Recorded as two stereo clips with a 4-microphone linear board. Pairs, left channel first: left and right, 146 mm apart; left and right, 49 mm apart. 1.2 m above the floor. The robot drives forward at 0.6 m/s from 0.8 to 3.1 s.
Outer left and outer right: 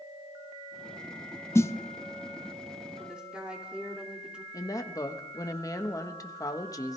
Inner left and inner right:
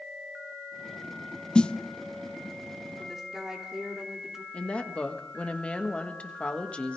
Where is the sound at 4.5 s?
25° left (ahead or behind), 1.2 m.